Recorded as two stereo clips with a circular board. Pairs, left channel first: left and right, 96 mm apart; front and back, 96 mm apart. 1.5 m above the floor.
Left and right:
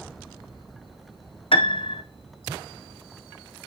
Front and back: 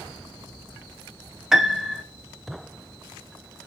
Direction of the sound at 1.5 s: 95° left.